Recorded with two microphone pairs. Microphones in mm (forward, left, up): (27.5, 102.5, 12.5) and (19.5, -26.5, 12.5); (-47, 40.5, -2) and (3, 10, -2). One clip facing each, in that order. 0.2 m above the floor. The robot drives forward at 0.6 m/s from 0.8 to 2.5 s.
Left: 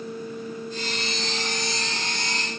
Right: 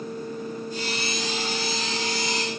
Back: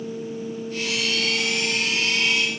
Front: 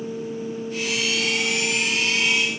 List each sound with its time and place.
Only background noise.